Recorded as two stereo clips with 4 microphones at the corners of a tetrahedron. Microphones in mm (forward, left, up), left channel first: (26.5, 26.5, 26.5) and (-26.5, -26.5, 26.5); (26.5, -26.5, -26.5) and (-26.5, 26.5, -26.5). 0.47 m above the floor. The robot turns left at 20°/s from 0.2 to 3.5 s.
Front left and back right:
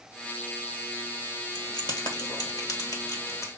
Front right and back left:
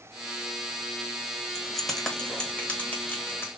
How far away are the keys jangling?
About 1.1 m.